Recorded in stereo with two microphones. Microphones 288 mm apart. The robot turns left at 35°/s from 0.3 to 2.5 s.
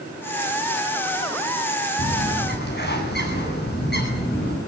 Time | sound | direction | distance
2.0 | a bird | 55° left (ahead or behind) | 9 m